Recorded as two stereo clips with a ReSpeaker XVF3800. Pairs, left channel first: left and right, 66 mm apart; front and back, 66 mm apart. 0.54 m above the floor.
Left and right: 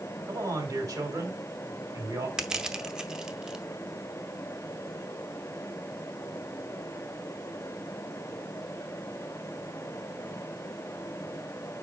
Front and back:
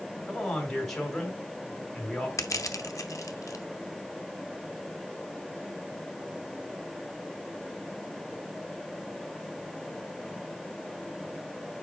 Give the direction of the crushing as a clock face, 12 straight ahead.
12 o'clock.